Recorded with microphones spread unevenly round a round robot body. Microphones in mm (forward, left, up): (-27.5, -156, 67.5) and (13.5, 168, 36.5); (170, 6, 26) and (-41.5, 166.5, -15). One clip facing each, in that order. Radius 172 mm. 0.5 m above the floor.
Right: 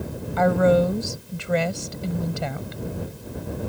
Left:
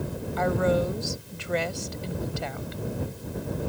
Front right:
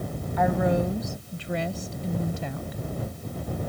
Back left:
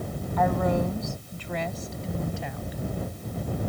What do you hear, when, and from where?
0.4 s a woman speaking: 125° right; by 2.8 s 95° right